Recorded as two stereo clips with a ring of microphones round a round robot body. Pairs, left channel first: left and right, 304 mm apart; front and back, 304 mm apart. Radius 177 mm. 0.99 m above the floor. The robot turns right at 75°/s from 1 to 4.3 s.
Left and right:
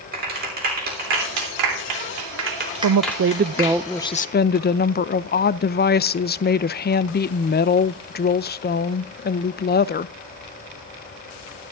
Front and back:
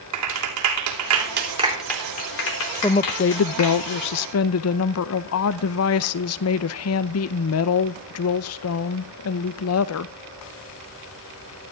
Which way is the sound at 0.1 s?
150° right.